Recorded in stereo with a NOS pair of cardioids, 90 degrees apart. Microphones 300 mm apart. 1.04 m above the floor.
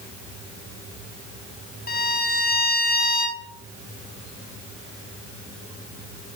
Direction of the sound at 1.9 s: 30° left.